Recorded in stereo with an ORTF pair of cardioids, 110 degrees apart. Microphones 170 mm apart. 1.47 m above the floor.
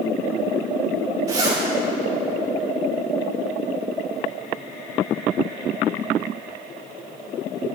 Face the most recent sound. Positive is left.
turn(degrees=-20)